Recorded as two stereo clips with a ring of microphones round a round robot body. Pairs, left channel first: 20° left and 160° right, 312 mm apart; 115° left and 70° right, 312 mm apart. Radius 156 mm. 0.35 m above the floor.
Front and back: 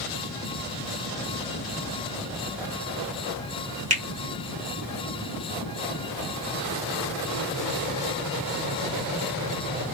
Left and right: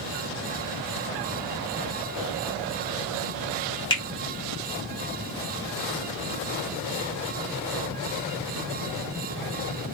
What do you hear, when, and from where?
3.9 s a finger snap: 165° left, 1.2 m